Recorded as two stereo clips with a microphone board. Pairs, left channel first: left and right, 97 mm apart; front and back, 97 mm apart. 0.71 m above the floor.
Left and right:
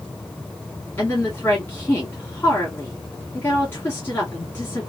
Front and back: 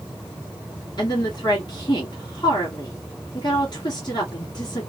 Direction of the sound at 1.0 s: 25° left.